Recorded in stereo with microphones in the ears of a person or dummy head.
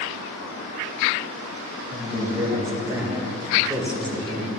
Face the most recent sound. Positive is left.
turn(degrees=5)  # may be behind; listen again after turning